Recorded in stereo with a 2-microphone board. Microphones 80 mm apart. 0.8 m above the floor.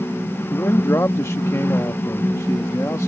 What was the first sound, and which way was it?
A man speaking, 35° left (ahead or behind).